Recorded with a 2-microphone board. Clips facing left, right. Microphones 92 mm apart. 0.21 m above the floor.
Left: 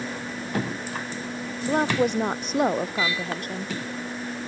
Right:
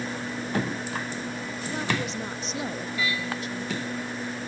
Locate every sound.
1.6 s a woman speaking: 55° left (ahead or behind)